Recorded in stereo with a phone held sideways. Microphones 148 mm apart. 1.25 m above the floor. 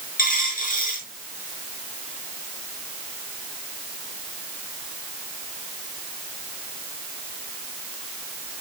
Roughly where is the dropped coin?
Left.